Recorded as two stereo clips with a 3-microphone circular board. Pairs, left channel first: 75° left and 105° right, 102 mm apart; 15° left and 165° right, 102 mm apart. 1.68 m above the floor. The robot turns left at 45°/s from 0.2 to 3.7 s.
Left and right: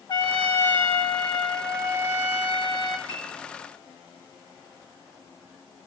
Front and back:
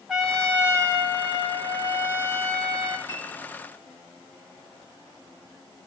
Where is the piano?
50° left, 8 m; by 3.4 s 35° left, 8 m.